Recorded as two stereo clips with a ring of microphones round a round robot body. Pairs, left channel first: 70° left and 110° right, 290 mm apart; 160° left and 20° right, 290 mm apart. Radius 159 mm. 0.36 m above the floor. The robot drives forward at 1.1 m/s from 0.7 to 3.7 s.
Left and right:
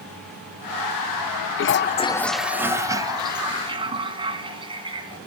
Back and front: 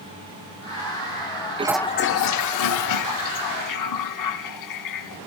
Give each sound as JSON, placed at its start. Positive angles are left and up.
{"t": 1.6, "sound": "a toilet flushing", "azimuth_deg": 40, "distance_m": 0.5}